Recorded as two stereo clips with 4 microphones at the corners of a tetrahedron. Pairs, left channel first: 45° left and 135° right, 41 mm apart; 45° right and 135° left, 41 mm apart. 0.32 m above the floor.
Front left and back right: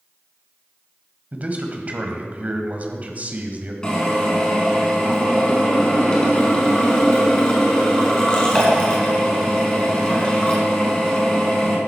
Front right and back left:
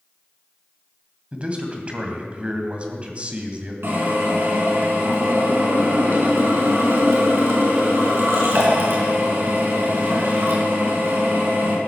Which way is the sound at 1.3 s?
175° right.